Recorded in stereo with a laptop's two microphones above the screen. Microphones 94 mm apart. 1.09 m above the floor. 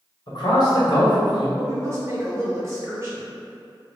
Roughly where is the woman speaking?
Right.